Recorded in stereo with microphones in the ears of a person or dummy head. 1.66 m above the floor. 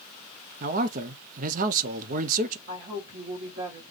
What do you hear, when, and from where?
0.6 s a man speaking: 55° right (ahead or behind), 0.7 m
2.7 s a woman speaking: 60° right (ahead or behind), 2.5 m